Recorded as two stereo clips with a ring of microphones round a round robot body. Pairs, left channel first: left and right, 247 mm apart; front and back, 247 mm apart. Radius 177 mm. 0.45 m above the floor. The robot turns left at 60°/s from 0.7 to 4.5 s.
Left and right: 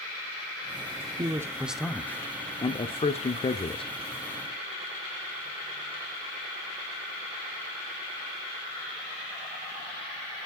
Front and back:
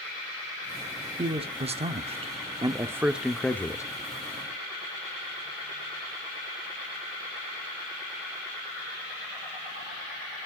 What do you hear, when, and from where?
1.2 s a man speaking: 145° right, 1.0 m; by 3.8 s 60° left, 1.0 m